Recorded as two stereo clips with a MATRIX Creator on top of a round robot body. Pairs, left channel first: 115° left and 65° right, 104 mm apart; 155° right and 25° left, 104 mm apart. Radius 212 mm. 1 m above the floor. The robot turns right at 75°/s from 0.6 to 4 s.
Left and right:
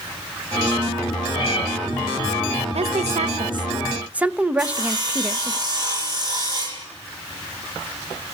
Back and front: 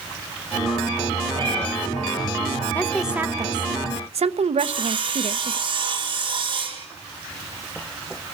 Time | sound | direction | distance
1.4 | a cat meowing | 65° left | 6.5 m
2.8 | a woman speaking | 85° right | 1.1 m
4.6 | sawing | 20° right | 5 m